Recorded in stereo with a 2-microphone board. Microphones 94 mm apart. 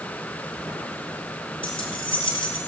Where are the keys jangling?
65° left (ahead or behind), 1.7 m.